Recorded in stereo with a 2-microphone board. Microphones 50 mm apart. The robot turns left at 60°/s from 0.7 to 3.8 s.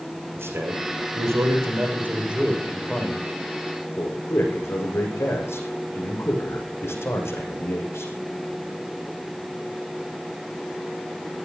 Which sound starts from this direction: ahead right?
A man speaking, at 0.4 s.